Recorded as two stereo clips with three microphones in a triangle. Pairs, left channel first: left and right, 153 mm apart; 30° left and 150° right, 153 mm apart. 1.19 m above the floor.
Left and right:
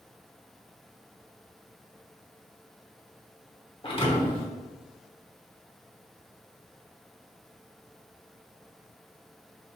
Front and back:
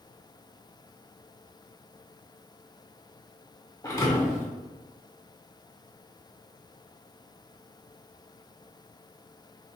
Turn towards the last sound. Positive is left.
turn(degrees=80)